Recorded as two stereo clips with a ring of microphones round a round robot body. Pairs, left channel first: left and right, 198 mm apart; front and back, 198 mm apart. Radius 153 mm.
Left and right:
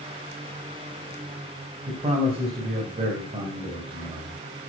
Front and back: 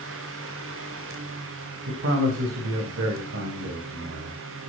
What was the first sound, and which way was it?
A man speaking, 155° right.